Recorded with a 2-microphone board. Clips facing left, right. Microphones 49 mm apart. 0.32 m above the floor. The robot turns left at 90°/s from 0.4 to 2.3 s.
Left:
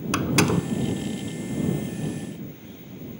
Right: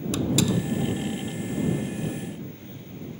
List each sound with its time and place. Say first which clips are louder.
0.1 s a door slam: left 3 dB; 60° left (ahead or behind); by 0.8 s 35° left (ahead or behind)